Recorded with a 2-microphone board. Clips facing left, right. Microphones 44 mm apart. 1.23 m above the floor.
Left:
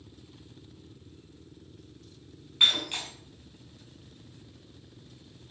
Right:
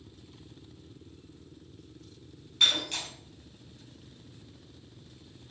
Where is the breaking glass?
20° left (ahead or behind), 5 m.